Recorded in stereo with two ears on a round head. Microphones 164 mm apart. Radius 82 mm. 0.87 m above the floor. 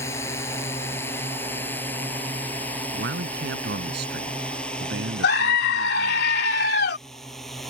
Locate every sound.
0.0 s a drone: 15° left (ahead or behind); by 7.7 s centre (ahead or behind)
2.9 s a man speaking: 65° right (ahead or behind)
5.2 s a scream: 60° left (ahead or behind)